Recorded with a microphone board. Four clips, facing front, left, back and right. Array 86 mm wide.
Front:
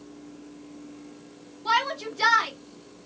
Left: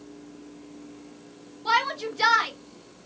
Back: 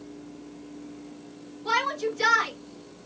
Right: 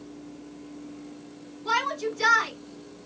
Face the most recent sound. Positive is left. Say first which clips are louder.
# left 2 dB, front 1 dB
turn(degrees=60)